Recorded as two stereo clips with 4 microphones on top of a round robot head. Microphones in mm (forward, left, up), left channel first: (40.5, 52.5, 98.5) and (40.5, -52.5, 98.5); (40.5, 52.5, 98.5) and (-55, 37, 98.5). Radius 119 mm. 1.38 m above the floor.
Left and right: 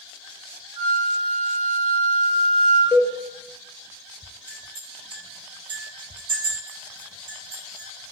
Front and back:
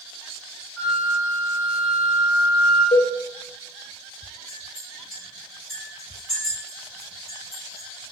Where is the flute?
45° right, 0.9 m.